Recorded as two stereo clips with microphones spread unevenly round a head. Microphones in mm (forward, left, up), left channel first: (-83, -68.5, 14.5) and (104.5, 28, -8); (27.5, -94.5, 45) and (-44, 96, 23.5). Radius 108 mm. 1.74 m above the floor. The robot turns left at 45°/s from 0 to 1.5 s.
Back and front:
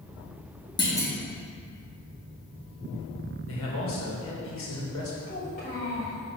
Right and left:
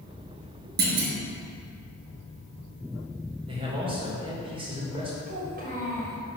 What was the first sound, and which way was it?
A clunk, 150° left.